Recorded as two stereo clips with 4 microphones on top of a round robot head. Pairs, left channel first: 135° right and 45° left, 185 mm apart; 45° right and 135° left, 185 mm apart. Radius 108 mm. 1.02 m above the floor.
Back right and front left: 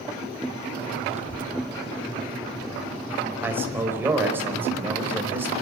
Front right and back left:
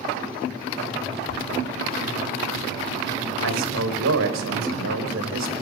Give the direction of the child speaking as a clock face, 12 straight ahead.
9 o'clock.